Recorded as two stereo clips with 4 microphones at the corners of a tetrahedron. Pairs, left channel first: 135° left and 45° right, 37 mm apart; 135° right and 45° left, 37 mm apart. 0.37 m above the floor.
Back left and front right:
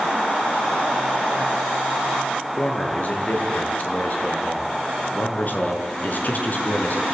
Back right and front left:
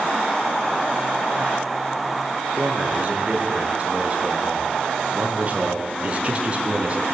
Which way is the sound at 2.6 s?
95° left.